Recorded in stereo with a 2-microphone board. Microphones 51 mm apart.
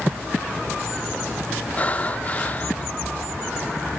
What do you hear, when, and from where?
1.8 s breathing: 30° left (ahead or behind), 0.7 m